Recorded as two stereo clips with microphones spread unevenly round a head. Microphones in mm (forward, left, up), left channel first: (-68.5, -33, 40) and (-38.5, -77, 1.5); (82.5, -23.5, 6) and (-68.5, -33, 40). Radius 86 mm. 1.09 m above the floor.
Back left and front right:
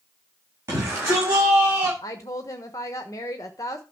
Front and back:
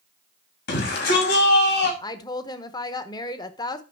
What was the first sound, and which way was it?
A shout, straight ahead.